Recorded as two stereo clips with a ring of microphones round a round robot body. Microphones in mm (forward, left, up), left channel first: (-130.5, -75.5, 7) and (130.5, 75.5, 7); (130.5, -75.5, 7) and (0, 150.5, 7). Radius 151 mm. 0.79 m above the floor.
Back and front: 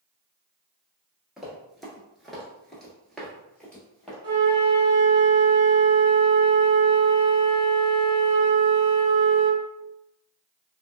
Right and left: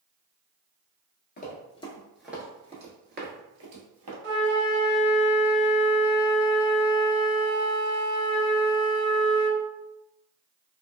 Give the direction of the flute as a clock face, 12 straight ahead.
9 o'clock.